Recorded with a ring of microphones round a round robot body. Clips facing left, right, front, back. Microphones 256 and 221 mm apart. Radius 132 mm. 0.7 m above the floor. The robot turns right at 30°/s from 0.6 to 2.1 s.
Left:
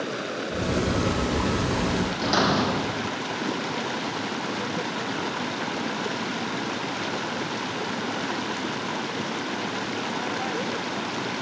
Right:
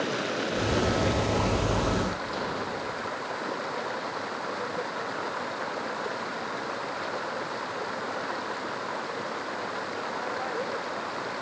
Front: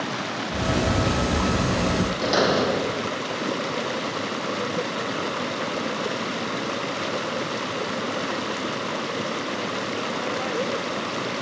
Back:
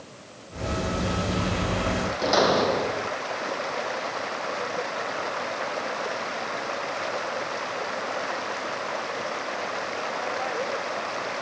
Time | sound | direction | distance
0.0 | running water | straight ahead | ?
2.2 | a door slam | 80° left | ?